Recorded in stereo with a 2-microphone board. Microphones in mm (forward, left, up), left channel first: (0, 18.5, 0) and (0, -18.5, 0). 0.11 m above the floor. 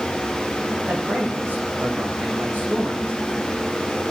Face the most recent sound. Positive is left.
turn(degrees=-55)  # may be behind; listen again after turning